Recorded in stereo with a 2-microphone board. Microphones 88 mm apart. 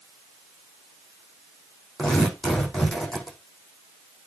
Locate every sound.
2.0 s tearing paper: 10° left (ahead or behind), 4.5 m